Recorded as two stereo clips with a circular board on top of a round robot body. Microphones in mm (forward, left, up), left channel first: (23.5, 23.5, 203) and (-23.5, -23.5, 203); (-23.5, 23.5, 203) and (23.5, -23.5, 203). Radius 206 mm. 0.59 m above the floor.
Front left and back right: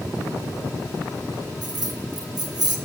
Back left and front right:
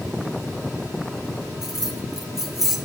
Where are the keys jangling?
130° right, 1.4 m.